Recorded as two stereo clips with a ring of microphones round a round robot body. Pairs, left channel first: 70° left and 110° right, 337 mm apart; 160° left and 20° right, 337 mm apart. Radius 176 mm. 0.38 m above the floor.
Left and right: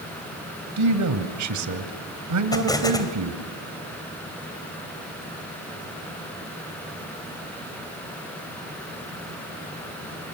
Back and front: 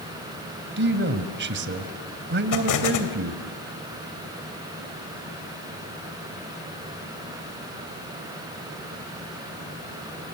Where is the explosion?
145° left, 2.5 m.